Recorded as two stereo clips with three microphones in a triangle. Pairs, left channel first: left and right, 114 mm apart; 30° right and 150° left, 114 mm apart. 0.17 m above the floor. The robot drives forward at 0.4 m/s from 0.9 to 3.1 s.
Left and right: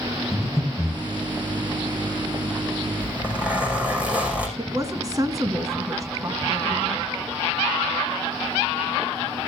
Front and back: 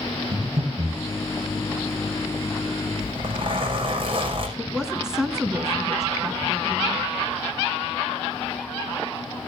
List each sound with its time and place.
0.3 s breathing: straight behind, 2.5 m
3.0 s a zipper: 170° right, 5.5 m
4.6 s a woman speaking: 130° right, 1.5 m